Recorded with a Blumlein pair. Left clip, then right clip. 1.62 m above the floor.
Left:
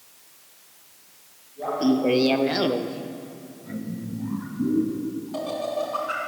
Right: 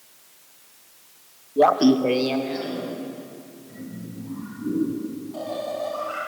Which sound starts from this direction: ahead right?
Laughter, at 1.6 s.